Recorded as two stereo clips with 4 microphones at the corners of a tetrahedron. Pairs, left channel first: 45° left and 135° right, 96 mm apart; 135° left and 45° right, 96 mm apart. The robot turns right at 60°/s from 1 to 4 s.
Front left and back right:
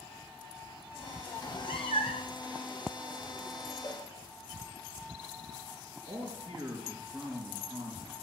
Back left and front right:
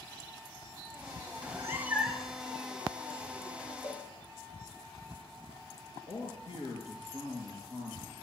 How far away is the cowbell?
About 4 m.